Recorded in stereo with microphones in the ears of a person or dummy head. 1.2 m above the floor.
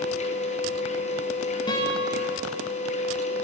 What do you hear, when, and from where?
0.0 s a machine running: 35° left (ahead or behind), 1.1 m
1.7 s a guitar: 20° left (ahead or behind), 1.9 m